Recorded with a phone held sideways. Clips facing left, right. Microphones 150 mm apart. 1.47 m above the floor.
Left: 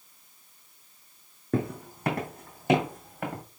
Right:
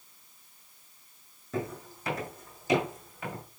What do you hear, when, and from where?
1.5 s footsteps: 55° left (ahead or behind), 2.5 m